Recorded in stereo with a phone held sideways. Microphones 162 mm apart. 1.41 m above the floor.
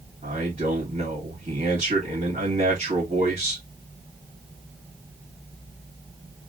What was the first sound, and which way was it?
A man speaking, 45° right (ahead or behind).